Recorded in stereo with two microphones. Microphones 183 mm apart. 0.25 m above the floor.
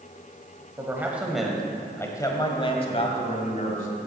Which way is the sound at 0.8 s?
15° right (ahead or behind).